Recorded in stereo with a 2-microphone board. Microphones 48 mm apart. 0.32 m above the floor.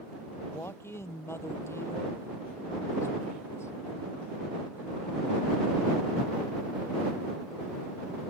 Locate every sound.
0.5 s a man speaking: 60° left (ahead or behind); by 3.7 s 70° left (ahead or behind)